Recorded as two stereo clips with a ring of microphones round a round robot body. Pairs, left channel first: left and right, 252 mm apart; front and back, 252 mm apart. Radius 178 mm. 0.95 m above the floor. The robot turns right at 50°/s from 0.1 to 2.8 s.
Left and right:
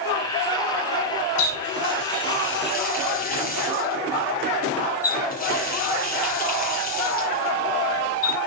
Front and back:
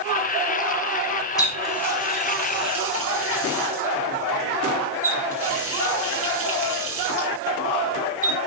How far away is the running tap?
About 6 m.